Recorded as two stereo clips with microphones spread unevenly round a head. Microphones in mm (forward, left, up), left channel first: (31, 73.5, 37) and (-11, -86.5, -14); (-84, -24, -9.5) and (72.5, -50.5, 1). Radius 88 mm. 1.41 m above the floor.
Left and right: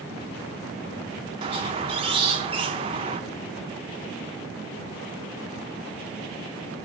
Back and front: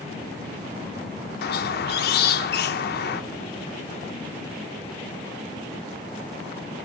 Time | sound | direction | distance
1.4 | a squeak | 170° right | 0.9 m